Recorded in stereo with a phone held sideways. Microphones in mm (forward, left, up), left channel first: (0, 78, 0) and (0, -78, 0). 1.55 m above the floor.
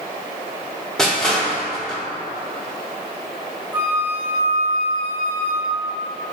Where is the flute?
15° right (ahead or behind), 0.9 m.